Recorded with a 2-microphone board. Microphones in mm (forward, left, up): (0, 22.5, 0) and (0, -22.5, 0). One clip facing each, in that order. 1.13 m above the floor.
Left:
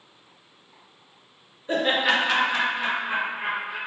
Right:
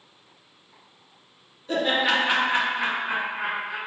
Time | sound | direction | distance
1.7 | laughter | 25° left (ahead or behind) | 0.7 m